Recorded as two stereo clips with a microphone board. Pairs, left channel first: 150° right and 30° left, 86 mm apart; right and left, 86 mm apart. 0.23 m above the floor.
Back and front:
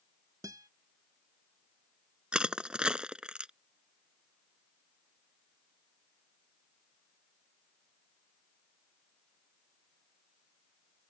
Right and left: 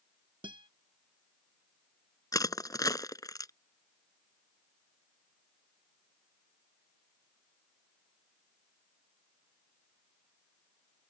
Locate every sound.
0.4 s a guitar: 75° left
2.3 s crushing: 50° right